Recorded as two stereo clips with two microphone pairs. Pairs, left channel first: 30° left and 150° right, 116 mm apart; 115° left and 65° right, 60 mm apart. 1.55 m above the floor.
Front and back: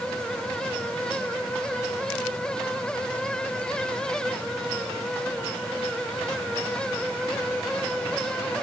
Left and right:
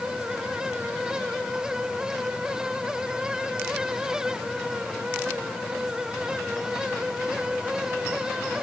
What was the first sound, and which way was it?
Only background noise.